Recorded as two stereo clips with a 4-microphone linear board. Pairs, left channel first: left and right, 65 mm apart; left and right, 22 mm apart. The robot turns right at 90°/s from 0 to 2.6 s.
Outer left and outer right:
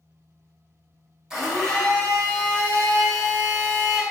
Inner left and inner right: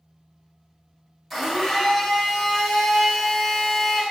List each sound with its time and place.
1.3 s a blender: 10° right (ahead or behind), 0.9 m; by 4.0 s 25° left (ahead or behind), 0.9 m